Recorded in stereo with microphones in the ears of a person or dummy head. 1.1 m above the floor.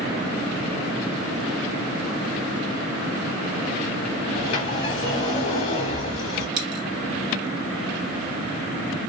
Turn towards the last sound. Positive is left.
turn(degrees=-60)  # may be behind; listen again after turning